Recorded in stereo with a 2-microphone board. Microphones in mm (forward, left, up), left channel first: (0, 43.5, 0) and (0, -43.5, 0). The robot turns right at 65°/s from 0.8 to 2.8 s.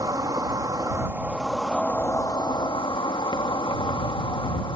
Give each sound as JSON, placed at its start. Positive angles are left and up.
{"t": 0.0, "sound": "an insect", "azimuth_deg": -50}